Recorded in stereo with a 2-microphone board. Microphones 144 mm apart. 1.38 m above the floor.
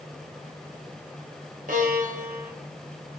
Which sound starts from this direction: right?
A violin, at 1.7 s.